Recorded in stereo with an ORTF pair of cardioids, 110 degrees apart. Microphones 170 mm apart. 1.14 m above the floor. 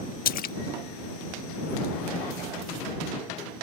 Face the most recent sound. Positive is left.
turn(degrees=60)